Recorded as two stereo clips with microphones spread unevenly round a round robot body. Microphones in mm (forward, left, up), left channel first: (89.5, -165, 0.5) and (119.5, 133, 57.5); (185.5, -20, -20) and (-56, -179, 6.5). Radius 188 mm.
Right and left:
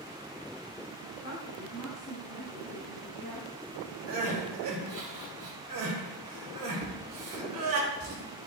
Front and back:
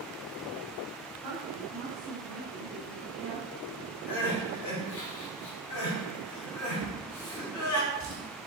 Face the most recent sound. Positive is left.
turn(degrees=155)